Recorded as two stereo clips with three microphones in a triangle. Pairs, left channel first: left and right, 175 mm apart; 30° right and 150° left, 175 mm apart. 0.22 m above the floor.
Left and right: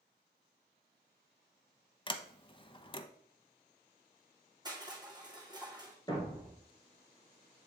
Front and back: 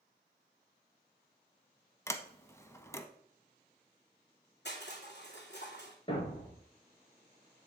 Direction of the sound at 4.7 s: 25° right.